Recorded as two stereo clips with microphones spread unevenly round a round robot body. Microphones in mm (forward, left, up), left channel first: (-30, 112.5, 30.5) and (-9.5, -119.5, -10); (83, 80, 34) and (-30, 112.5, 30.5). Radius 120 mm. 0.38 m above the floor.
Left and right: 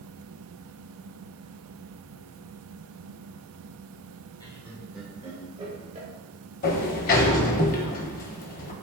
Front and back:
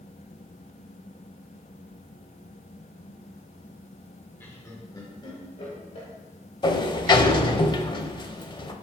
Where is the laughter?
20° left, 1.3 m; by 6.1 s 40° right, 1.8 m.